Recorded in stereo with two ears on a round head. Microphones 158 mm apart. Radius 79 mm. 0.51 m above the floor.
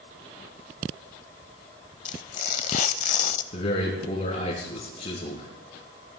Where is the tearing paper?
45° left (ahead or behind), 0.8 m.